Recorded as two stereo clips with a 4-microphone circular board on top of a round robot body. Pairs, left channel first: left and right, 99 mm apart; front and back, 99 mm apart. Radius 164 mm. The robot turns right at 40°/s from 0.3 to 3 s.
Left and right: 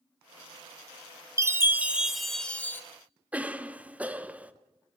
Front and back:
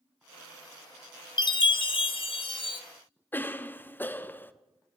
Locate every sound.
1.4 s a chime: 35° right, 1.0 m; by 2.8 s 25° left, 1.0 m
3.3 s a cough: 35° right, 0.9 m